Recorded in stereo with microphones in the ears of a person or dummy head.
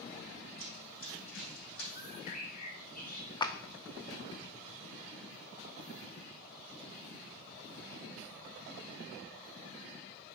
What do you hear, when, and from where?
0.6 s running footsteps: 45° left (ahead or behind), 2.5 m; by 1.9 s 55° left (ahead or behind), 3 m
1.9 s a bird: 45° left (ahead or behind), 1.3 m
3.4 s a clap: 25° left (ahead or behind), 0.6 m